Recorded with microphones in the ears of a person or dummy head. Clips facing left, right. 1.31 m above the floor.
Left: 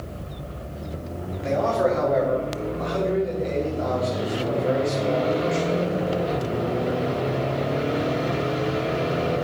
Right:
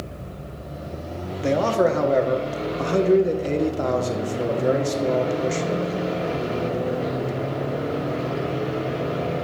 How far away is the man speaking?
About 1.2 m.